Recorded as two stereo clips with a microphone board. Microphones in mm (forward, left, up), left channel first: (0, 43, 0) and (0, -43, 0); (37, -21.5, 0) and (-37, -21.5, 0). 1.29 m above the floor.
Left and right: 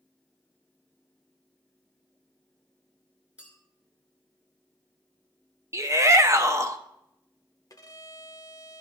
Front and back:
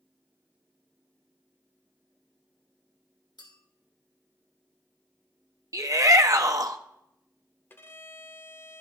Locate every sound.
3.4 s a clink: 15° right, 2.5 m
5.7 s a shout: 140° right, 0.8 m
7.7 s a violin: 55° left, 0.6 m